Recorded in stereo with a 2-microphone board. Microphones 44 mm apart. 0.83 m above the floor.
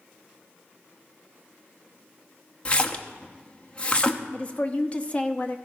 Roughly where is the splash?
Left.